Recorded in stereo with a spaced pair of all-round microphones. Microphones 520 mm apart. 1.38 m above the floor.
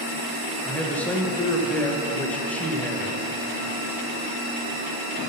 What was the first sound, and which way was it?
A man speaking, 5° left (ahead or behind).